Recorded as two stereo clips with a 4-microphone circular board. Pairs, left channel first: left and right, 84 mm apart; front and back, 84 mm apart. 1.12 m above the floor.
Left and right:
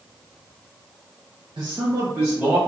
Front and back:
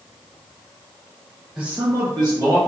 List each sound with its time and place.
1.6 s a man speaking: 95° right, 0.5 m; by 2.6 s 165° right, 1.3 m